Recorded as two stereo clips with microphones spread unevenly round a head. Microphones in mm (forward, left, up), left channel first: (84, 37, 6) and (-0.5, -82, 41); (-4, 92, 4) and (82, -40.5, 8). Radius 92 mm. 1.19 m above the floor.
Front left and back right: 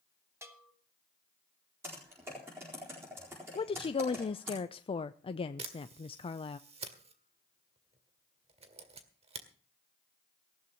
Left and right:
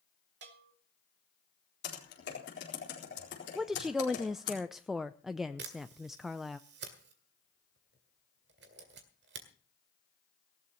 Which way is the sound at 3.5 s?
30° left.